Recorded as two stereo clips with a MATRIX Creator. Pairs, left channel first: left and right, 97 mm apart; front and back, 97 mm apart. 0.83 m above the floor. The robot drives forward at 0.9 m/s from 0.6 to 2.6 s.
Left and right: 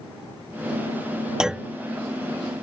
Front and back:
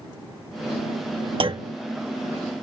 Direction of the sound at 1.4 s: 175° right.